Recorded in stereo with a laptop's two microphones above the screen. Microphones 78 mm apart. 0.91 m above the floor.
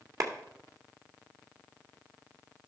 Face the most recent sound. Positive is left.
turn(degrees=-50)  # may be behind; listen again after turning